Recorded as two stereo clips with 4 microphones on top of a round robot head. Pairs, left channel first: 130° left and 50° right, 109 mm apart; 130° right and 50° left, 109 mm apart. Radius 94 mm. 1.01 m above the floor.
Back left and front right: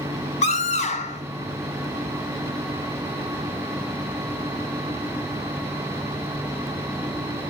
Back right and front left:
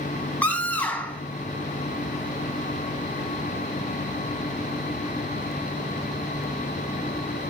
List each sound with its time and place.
0.4 s a scream: 150° left, 8 m